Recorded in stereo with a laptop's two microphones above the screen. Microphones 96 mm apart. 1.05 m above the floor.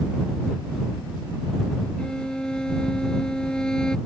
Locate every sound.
2.0 s a violin: 10° left (ahead or behind)